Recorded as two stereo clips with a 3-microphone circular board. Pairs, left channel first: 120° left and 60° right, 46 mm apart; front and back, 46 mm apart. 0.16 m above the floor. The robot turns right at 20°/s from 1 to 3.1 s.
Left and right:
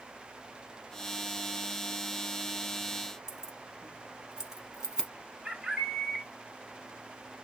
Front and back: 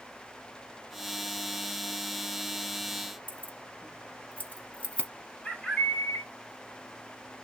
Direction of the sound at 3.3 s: 5° left.